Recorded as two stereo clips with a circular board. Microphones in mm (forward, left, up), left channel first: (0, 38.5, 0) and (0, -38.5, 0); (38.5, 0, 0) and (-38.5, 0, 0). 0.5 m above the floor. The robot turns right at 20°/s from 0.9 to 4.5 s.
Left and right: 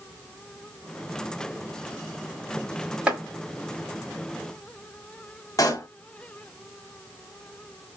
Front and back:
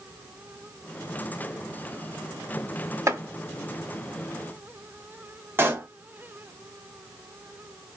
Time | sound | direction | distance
3.1 | chopping | 160° right | 1.4 m
5.6 | a pop | 125° left | 1.0 m